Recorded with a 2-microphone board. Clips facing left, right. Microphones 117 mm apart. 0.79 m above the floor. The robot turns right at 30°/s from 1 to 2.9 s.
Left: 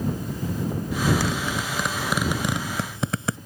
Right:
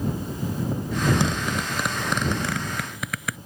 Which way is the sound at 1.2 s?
20° right (ahead or behind).